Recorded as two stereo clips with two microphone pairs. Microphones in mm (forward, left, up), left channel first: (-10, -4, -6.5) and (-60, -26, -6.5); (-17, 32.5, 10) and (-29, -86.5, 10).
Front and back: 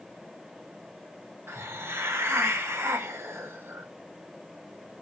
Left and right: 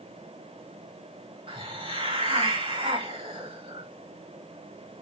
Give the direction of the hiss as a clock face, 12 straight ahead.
4 o'clock.